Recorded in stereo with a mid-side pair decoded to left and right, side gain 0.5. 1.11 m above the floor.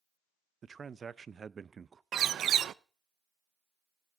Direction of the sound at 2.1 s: 55° right.